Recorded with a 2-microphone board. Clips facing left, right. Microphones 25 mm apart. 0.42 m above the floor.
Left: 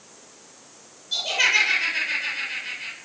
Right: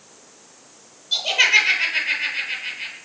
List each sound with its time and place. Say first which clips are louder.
1.1 s laughter: right 4 dB; 35° right (ahead or behind), 8.5 m